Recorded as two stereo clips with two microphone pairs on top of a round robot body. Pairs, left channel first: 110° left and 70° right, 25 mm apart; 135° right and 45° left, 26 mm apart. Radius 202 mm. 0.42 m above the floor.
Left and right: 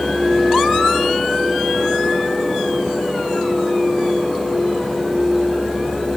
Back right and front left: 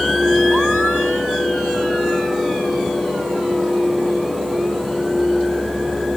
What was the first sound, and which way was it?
Only background noise.